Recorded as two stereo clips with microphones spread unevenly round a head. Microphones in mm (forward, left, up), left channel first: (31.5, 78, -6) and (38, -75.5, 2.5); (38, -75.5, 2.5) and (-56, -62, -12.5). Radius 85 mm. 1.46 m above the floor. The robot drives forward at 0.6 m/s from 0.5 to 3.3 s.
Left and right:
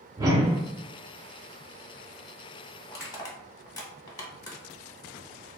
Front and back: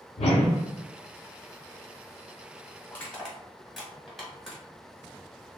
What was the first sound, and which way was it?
A whoosh, 15° right.